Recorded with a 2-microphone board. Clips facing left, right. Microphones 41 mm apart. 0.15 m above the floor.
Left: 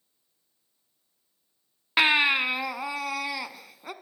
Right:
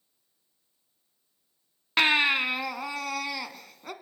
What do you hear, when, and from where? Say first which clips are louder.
2.0 s a baby crying: left 1 dB; 5° left (ahead or behind), 0.7 m